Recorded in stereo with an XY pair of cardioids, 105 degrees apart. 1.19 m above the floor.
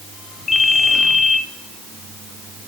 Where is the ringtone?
35° left, 2.5 m.